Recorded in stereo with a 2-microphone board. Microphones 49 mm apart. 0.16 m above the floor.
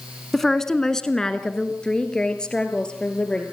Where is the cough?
I don't hear a cough.